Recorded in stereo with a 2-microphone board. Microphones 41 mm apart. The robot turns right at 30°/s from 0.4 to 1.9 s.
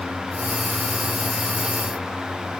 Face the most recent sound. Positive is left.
No sound to turn to.